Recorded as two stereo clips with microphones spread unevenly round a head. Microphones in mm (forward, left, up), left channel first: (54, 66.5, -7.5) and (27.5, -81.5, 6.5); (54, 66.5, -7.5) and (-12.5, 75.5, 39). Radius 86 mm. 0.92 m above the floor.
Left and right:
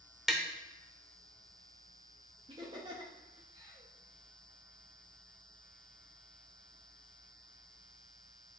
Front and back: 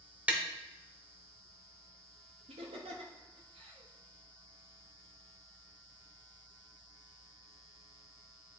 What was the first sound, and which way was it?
Tapping, 175° left.